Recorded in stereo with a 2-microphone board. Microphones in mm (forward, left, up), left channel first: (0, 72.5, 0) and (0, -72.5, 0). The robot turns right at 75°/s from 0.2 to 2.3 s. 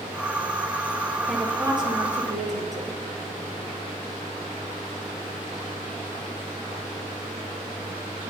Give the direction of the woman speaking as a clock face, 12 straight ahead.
6 o'clock.